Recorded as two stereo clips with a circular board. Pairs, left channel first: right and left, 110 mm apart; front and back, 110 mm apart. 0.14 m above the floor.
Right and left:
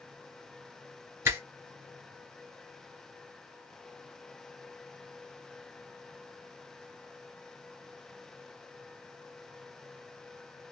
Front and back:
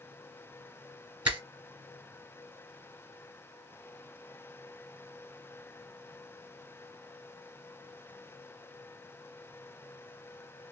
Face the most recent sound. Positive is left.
turn(degrees=115)